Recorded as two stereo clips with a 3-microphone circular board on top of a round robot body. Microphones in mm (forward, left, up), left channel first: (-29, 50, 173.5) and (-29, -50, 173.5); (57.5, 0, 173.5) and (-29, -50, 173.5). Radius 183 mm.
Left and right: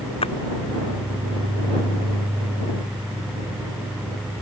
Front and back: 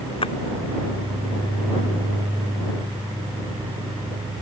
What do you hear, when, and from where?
0.2 s a splash: 60° left